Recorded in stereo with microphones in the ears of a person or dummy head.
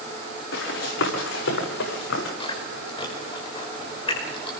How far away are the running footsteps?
About 9.5 m.